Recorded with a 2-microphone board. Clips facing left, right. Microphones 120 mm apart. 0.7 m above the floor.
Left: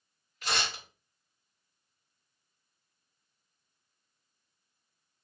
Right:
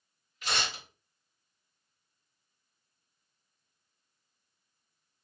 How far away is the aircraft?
I don't hear an aircraft.